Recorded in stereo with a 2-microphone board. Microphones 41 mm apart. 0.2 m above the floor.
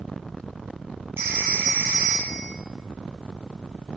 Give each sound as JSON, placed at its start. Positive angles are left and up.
{"t": 1.2, "sound": "a phone ringing", "side_deg": -75, "distance_m": 3.0}